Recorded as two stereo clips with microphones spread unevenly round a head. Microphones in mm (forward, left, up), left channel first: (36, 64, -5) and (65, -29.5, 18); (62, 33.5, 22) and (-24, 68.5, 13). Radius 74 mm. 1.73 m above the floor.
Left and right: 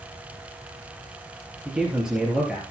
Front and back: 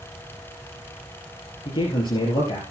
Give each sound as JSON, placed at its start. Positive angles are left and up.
{"t": 1.6, "sound": "a man speaking", "azimuth_deg": 10, "distance_m": 3.5}